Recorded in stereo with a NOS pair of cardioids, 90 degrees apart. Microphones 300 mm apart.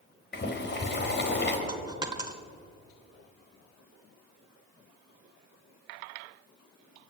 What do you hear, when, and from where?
0.3 s boiling: 35° left, 4 m
1.7 s a dropped coin: 15° right, 2.5 m